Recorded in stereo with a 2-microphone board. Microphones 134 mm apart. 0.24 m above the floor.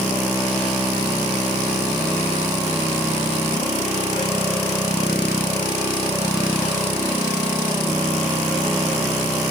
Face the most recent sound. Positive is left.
No sound to turn to.